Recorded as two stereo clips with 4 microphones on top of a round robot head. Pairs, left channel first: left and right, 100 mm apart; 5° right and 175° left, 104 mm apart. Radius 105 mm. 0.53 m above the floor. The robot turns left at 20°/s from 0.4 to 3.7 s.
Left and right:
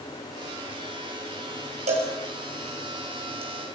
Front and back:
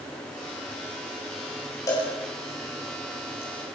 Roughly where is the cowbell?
Right.